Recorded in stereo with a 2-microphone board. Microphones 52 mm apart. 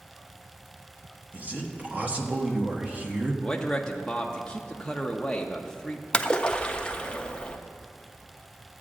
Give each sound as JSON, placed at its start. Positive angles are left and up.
{"t": 1.3, "sound": "a man speaking", "side_deg": -30, "distance_m": 1.0}
{"t": 3.4, "sound": "a man speaking", "side_deg": 10, "distance_m": 0.5}
{"t": 6.1, "sound": "a splash", "side_deg": 20, "distance_m": 0.5}